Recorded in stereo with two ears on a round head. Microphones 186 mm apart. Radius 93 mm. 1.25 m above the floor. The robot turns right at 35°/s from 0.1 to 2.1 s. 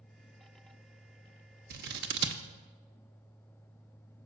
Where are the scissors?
45° right (ahead or behind), 0.9 m; by 2.4 s 55° right (ahead or behind), 0.9 m.